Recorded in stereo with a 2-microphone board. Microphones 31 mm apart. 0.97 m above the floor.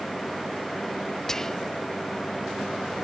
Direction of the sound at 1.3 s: 20° left (ahead or behind).